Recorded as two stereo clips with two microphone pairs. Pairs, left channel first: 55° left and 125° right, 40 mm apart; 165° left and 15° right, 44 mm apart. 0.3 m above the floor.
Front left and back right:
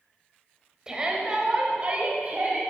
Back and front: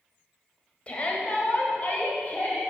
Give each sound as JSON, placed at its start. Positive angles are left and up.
{"t": 0.9, "sound": "a shout", "azimuth_deg": 180, "distance_m": 1.4}